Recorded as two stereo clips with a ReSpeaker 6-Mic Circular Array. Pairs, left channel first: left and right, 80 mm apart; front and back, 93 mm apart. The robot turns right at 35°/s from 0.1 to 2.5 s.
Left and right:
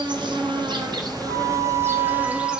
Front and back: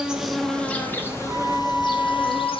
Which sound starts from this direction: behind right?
A flute, at 1.2 s.